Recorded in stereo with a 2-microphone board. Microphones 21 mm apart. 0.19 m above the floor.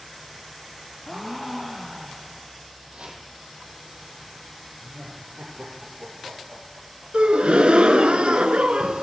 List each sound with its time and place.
1.1 s a gasp: centre (ahead or behind), 1.8 m
2.9 s chopping: 75° right (ahead or behind), 3 m
4.8 s laughter: 75° right (ahead or behind), 5.5 m
7.1 s a gasp: 70° right (ahead or behind), 0.8 m